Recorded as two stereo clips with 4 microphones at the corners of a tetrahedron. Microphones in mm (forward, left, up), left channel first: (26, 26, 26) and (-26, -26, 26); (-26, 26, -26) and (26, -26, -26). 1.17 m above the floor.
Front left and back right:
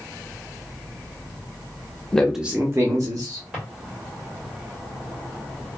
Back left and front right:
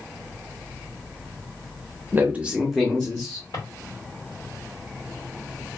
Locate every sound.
2.1 s a man speaking: 25° right, 0.7 m; by 3.4 s 155° right, 1.2 m
3.5 s a drawer: 150° left, 1.8 m